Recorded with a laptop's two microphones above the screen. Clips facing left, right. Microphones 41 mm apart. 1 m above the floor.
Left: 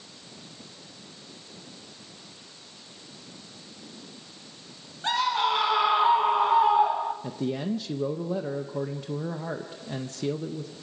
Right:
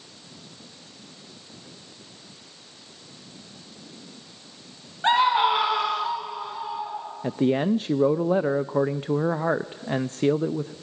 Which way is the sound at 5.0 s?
35° right (ahead or behind).